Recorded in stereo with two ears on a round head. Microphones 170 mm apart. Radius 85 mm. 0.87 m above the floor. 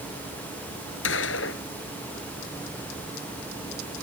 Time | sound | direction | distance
1.0 | a gunshot | 70° left (ahead or behind) | ?